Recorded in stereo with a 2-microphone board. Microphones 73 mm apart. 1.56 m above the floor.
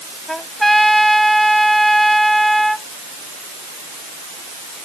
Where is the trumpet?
5° left (ahead or behind).